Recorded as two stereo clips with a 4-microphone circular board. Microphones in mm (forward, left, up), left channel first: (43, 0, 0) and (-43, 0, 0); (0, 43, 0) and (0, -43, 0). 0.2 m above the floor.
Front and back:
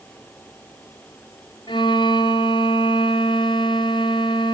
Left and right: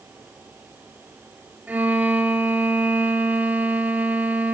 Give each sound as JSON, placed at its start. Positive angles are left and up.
{"t": 1.7, "sound": "a violin", "azimuth_deg": -20, "distance_m": 1.3}